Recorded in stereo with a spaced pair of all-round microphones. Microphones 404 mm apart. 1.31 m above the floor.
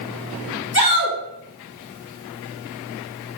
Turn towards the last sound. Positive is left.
turn(degrees=40)  # may be behind; listen again after turning